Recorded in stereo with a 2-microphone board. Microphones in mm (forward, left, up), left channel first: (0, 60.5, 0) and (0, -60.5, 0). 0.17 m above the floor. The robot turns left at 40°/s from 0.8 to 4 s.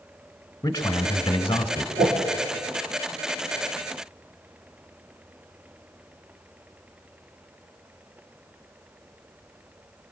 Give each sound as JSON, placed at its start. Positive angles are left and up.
{"t": 0.6, "sound": "a man speaking", "side_deg": 25, "distance_m": 1.3}
{"t": 2.0, "sound": "a whoosh", "side_deg": -60, "distance_m": 4.5}